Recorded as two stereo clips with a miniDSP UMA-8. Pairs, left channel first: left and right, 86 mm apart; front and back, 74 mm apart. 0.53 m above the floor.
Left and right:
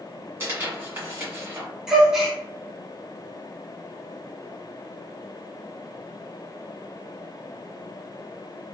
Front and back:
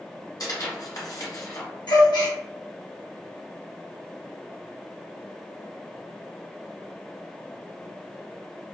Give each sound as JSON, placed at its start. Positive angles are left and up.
{"t": 0.4, "sound": "tearing paper", "azimuth_deg": -25, "distance_m": 1.5}
{"t": 1.9, "sound": "a gasp", "azimuth_deg": -5, "distance_m": 0.9}